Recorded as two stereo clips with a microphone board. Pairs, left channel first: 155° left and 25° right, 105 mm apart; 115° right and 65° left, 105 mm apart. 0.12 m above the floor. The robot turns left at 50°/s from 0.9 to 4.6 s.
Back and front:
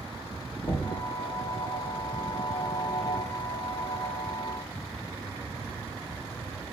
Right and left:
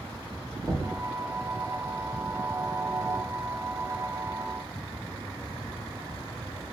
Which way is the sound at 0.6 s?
150° left.